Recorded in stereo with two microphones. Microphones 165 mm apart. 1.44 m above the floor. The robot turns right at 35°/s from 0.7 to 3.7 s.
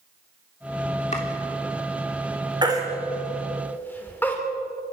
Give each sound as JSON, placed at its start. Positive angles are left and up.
{"t": 1.1, "sound": "chopping", "side_deg": 45, "distance_m": 3.0}
{"t": 2.6, "sound": "a baby crying", "side_deg": -25, "distance_m": 3.0}